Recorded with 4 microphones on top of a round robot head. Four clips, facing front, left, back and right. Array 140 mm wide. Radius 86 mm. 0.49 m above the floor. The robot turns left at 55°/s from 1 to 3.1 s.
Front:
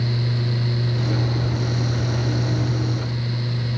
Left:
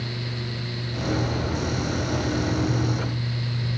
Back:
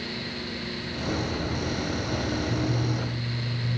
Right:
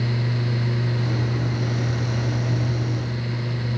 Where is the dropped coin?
I don't hear a dropped coin.